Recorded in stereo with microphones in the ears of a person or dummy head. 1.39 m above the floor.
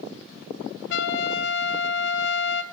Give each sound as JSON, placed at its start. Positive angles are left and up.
{"t": 0.9, "sound": "a trumpet", "side_deg": 70, "distance_m": 1.0}